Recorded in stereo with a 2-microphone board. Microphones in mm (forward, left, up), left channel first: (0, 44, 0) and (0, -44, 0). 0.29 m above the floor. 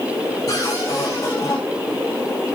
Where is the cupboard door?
40° left (ahead or behind), 10 m.